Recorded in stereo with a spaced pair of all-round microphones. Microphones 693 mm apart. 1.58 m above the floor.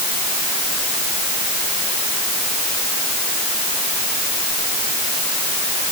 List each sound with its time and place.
Only background noise.